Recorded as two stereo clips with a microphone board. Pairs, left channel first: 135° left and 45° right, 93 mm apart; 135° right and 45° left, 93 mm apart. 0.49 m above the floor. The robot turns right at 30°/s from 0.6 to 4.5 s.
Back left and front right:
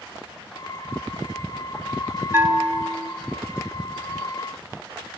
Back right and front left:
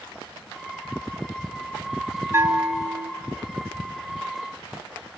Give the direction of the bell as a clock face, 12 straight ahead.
12 o'clock.